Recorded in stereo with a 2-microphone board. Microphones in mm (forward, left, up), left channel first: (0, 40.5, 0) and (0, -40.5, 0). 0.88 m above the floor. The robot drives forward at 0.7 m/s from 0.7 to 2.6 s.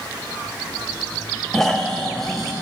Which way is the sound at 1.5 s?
5° left (ahead or behind).